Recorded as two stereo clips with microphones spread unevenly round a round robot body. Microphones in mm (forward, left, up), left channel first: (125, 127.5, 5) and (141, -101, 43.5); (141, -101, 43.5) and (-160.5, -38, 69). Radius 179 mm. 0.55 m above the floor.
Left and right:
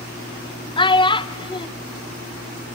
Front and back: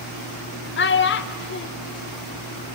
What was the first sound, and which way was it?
A child speaking, 35° left.